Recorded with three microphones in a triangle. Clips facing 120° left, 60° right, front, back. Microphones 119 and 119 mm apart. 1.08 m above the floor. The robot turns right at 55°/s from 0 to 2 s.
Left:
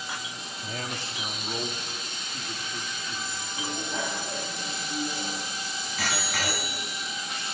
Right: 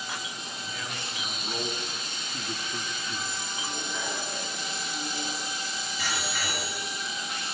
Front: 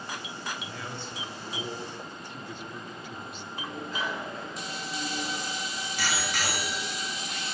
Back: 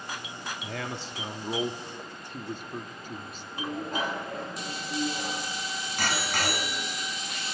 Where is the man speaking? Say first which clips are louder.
Left 4 dB, back 3 dB; 155° left, 2 m; by 3.5 s 130° right, 2 m.